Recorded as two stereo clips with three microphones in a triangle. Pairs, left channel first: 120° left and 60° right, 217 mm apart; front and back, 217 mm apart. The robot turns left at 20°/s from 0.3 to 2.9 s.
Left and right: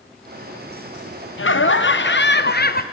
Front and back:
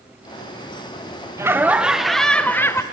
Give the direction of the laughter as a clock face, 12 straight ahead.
9 o'clock.